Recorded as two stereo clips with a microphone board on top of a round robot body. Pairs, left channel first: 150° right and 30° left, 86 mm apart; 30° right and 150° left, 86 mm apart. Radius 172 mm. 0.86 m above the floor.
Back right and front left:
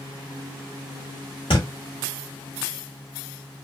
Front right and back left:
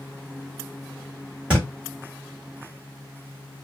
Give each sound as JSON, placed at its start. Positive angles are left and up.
{"t": 1.5, "sound": "a thud", "azimuth_deg": -135, "distance_m": 0.7}